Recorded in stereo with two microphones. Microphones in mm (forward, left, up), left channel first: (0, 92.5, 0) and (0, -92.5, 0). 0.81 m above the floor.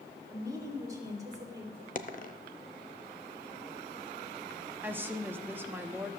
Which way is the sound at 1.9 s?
45° left (ahead or behind).